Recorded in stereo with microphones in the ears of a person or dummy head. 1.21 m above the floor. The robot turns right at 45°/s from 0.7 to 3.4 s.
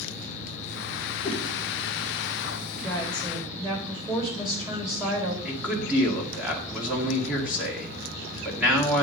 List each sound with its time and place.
1.2 s a whoosh: 35° left (ahead or behind), 1.4 m; by 1.4 s 25° left (ahead or behind), 1.4 m
2.8 s a woman speaking: 15° left (ahead or behind), 4 m; by 5.3 s 15° right (ahead or behind), 4 m
5.5 s a man speaking: centre (ahead or behind), 1.8 m